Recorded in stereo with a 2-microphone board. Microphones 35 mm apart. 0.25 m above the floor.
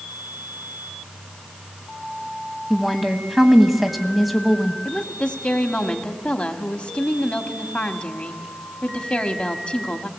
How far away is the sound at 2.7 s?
About 1.3 m.